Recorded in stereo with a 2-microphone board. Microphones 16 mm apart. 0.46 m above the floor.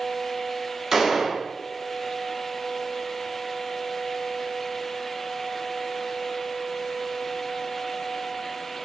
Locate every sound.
0.9 s a gunshot: 25° right (ahead or behind), 1.0 m